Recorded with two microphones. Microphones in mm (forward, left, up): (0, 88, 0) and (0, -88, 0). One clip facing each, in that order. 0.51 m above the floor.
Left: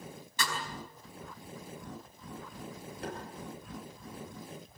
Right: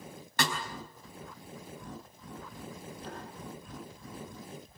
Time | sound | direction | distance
0.4 | a snare drum | 65° right (ahead or behind) | 4.5 m
3.0 | tapping | 70° left (ahead or behind) | 7 m